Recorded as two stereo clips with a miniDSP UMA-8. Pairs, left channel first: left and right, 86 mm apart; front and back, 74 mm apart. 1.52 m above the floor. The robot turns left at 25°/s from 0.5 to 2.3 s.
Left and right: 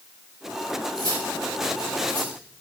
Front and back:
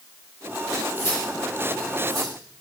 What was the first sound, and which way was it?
Cutlery clinking, 55° right.